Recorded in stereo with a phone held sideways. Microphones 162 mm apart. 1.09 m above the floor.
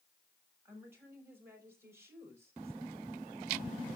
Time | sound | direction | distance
0.7 | a woman speaking | 15° right (ahead or behind) | 6.5 m